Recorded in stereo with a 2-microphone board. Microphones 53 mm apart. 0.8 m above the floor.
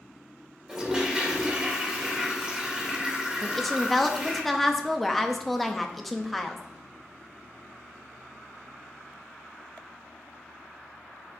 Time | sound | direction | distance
0.7 | a toilet flushing | 10° right (ahead or behind) | 1.9 m
3.4 | a woman speaking | centre (ahead or behind) | 0.9 m